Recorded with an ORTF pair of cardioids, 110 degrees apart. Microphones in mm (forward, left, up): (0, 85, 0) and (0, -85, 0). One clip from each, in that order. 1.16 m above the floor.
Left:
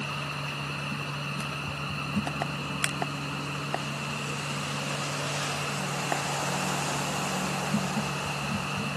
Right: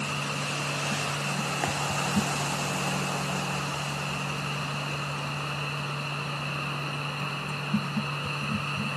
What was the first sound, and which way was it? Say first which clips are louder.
A machine running: right 3 dB; 15° right.